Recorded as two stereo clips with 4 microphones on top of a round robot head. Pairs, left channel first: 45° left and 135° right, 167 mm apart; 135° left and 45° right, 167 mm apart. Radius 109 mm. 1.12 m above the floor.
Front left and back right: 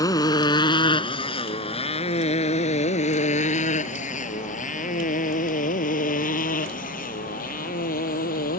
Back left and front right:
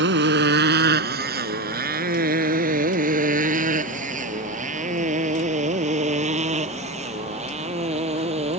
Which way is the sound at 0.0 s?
25° right.